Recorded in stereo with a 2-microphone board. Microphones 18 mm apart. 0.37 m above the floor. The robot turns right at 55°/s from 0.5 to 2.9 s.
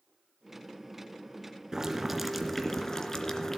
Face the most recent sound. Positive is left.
turn(degrees=30)